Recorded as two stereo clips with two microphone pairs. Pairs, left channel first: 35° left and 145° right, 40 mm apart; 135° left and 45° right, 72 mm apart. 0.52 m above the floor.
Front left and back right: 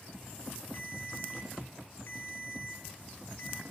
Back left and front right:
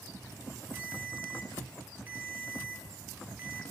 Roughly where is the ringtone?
Ahead.